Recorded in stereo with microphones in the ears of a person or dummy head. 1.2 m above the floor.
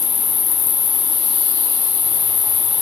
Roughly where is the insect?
Left.